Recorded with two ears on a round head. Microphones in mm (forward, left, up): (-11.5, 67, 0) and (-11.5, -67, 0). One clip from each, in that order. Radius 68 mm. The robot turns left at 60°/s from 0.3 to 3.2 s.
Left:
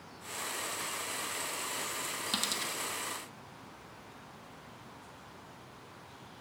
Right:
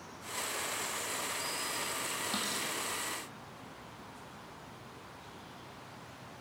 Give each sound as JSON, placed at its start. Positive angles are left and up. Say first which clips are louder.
{"t": 2.3, "sound": "a dropped coin", "louder": "left 5 dB", "side_deg": 60, "distance_m": 1.1}